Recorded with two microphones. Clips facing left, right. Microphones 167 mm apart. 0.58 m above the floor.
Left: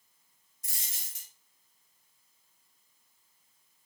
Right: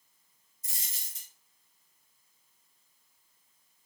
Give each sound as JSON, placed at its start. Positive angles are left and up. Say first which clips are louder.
{"t": 0.6, "sound": "a dropped coin", "louder": "left 1 dB", "side_deg": 65, "distance_m": 1.5}